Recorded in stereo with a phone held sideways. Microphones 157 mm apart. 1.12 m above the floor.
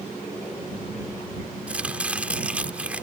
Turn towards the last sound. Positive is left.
turn(degrees=-10)  # may be behind; listen again after turning